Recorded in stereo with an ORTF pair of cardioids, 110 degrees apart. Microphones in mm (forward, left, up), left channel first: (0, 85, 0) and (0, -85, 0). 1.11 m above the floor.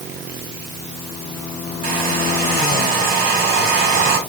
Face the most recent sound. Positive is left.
turn(degrees=-70)